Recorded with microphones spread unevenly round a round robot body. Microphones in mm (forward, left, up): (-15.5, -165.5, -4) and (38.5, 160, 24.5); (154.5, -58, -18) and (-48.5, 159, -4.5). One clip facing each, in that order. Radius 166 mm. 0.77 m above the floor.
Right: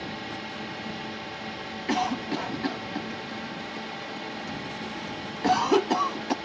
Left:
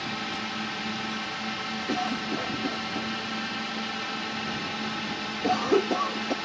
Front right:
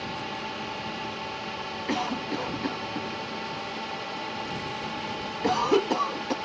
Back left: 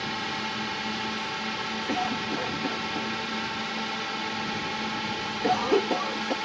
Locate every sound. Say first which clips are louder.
0.0 s a drone: left 1 dB, back left 1 dB; 110° left
1.9 s a cough: right 2 dB, front right 1 dB; 105° right